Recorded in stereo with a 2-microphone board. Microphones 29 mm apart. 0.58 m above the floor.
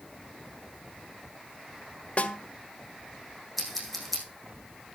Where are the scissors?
Centre (ahead or behind), 5.5 m.